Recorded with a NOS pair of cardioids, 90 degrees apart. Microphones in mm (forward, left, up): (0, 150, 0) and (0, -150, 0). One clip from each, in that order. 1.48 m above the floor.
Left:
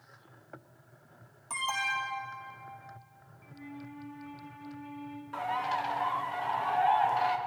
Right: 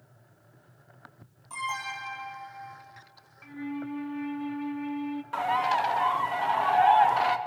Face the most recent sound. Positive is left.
turn(degrees=-35)